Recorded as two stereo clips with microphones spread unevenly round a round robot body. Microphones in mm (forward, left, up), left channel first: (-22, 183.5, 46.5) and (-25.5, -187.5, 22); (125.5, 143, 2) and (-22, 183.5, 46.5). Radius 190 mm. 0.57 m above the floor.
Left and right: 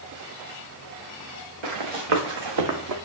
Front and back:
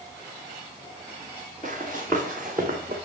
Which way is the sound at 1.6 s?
90° right.